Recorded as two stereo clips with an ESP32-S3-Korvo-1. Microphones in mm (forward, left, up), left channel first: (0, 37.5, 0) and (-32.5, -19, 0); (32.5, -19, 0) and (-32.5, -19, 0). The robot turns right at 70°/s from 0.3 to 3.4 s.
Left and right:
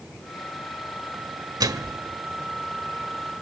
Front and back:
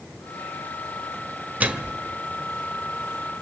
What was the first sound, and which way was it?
A microwave, 115° right.